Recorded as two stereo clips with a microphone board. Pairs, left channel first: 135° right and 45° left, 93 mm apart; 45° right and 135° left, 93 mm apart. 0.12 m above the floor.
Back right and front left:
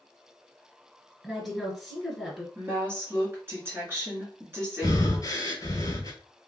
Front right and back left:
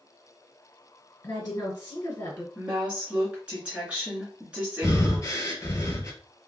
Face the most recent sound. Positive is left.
turn(degrees=-95)